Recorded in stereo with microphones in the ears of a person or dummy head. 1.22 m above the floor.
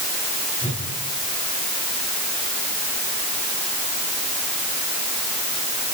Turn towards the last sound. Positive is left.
turn(degrees=35)  # may be behind; listen again after turning